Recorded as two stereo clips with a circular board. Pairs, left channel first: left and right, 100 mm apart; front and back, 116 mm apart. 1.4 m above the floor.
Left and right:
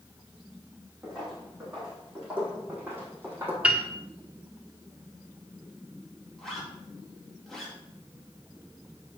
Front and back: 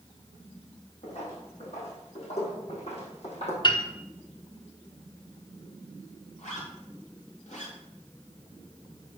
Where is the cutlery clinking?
I don't hear cutlery clinking.